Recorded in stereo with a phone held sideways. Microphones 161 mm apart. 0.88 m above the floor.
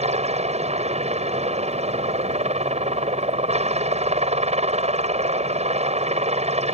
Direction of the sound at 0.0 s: 40° right (ahead or behind).